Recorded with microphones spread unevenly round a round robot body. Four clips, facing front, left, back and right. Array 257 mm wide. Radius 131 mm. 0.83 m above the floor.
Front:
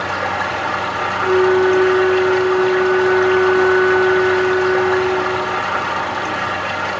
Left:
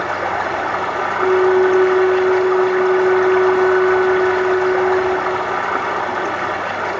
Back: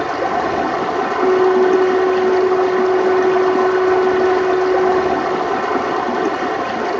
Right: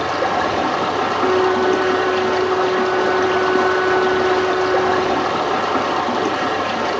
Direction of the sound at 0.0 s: 150° right.